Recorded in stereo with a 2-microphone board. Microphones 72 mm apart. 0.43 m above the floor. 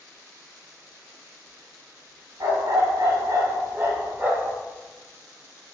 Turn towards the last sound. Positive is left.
turn(degrees=-15)  # may be behind; listen again after turning